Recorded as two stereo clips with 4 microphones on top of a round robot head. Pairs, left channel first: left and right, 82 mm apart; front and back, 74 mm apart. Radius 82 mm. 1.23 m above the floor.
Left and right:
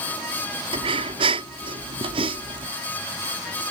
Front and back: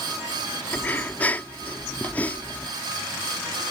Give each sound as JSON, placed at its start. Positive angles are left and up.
{"t": 0.7, "sound": "breathing", "azimuth_deg": -75}